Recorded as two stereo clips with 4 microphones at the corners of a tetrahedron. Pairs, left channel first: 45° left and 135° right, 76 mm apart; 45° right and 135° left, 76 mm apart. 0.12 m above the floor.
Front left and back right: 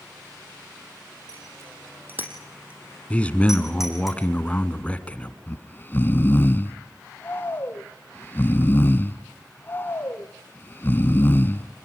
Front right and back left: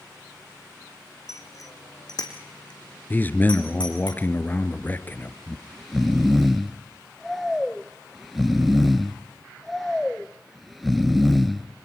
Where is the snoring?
45° left, 0.6 m.